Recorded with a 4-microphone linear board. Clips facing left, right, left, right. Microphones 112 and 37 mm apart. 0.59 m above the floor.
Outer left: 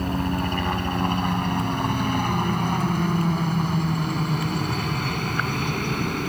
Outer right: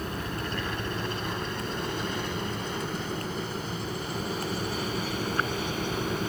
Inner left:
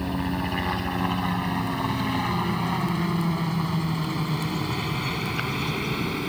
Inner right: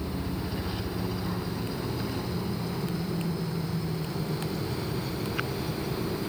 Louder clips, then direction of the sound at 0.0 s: Outer left 8 dB, inner left 6 dB; 55° left (ahead or behind).